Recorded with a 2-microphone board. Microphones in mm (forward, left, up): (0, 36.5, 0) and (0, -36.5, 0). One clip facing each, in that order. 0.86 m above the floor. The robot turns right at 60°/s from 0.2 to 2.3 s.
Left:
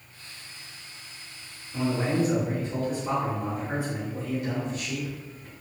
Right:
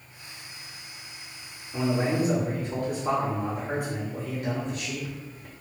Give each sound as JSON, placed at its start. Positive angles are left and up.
{"t": 1.7, "sound": "a man speaking", "azimuth_deg": -140, "distance_m": 1.5}